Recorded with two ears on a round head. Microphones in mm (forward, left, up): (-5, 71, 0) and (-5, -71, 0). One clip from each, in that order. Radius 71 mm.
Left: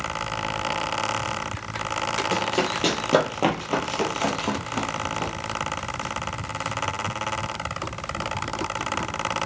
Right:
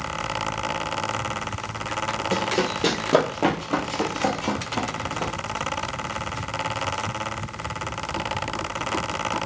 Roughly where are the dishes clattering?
No dishes clattering in this recording.